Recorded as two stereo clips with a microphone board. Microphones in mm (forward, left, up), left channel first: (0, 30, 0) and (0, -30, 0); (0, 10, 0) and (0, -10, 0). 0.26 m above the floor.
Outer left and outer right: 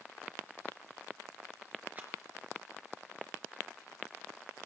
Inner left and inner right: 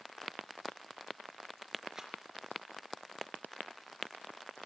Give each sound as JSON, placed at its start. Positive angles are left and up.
{"t": 1.9, "sound": "a rattle", "side_deg": -30, "distance_m": 3.5}